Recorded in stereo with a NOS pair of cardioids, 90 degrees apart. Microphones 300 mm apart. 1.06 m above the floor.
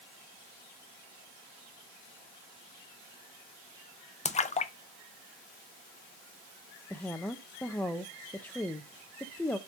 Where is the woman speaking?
5° left, 0.5 m.